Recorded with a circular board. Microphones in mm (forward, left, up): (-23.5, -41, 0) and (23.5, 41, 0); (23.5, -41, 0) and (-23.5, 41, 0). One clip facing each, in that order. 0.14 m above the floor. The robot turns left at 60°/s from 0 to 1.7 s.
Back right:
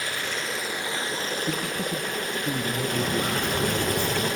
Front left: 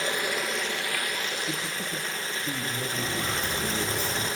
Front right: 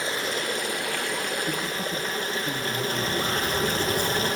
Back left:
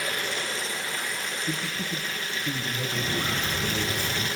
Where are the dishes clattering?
No dishes clattering in this recording.